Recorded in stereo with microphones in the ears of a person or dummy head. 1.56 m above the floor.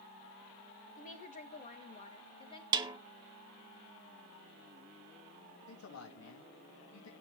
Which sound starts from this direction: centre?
A snare drum, at 2.7 s.